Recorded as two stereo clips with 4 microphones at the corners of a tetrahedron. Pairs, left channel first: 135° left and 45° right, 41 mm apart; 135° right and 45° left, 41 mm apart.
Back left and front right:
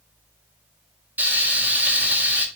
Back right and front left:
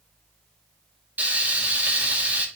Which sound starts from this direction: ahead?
Frying, at 1.2 s.